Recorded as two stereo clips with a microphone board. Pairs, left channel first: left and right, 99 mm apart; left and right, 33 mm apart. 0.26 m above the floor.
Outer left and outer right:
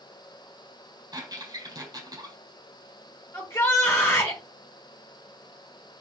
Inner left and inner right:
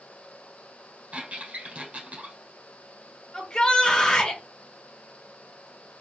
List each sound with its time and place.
1.1 s a squeak: 40° right (ahead or behind), 3.5 m
3.3 s a shout: 25° left (ahead or behind), 1.2 m